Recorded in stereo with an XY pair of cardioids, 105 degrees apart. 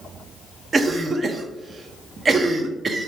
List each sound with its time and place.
0.7 s a cough: 35° right, 0.6 m